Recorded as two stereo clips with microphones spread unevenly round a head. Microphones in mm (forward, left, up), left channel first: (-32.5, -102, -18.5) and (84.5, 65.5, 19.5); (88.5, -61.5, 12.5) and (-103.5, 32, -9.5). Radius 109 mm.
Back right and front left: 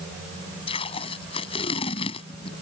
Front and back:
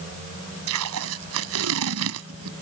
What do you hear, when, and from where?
0.7 s tape being pulled: 165° left